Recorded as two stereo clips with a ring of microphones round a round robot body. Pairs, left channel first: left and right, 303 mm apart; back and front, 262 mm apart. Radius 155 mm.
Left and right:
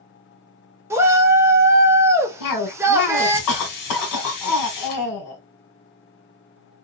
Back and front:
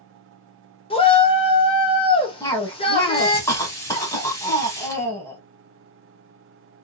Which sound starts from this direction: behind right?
A shout, at 0.9 s.